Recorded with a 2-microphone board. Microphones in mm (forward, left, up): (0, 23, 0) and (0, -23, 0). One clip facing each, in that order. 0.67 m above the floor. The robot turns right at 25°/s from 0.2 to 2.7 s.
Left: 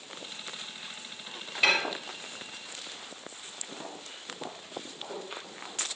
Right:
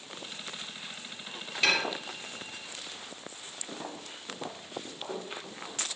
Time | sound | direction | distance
1.6 | dishes clattering | 10° left (ahead or behind) | 1.0 m
3.7 | footsteps | 60° right (ahead or behind) | 1.8 m